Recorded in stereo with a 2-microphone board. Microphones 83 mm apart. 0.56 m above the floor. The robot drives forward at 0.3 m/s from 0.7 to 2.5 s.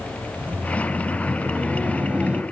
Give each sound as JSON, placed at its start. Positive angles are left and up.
{"t": 0.4, "sound": "laughter", "side_deg": -15, "distance_m": 2.0}